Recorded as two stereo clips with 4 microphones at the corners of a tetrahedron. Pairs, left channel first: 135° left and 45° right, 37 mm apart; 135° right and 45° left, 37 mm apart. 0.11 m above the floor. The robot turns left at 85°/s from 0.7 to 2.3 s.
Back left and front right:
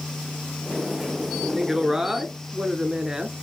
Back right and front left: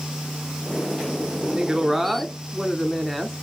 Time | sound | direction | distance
1.5 | a woman speaking | 20° left | 1.1 m